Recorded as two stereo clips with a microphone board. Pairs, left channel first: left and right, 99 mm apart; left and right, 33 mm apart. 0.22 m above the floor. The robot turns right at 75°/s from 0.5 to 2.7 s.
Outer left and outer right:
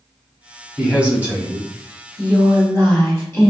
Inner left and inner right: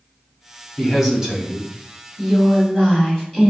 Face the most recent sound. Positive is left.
turn(degrees=55)